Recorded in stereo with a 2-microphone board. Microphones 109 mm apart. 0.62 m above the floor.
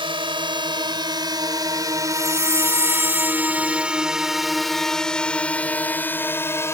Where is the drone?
50° right (ahead or behind); by 6.8 s 25° left (ahead or behind).